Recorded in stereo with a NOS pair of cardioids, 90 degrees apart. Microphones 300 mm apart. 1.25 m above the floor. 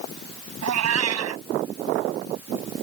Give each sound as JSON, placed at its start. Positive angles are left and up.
{"t": 0.6, "sound": "a cat meowing", "azimuth_deg": -60}